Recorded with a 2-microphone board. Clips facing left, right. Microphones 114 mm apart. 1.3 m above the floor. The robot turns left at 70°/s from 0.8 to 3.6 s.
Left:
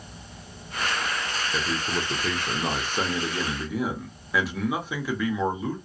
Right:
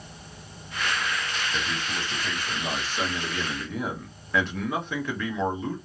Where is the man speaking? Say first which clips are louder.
Left 3 dB; 150° left, 1.0 m; by 5.8 s 5° left, 1.0 m.